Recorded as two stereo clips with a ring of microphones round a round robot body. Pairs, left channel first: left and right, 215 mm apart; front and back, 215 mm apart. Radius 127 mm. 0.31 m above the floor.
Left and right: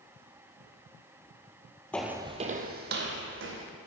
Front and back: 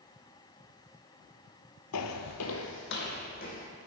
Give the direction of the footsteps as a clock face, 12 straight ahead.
12 o'clock.